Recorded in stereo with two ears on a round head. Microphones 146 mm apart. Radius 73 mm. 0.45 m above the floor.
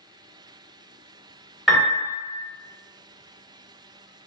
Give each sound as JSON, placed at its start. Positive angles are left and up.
{"t": 1.7, "sound": "a piano", "side_deg": 0, "distance_m": 1.3}